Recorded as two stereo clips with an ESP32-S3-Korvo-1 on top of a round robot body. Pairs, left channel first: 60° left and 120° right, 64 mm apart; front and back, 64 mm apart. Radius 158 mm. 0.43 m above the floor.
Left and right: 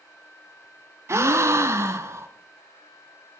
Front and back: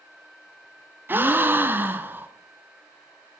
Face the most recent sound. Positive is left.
turn(degrees=-135)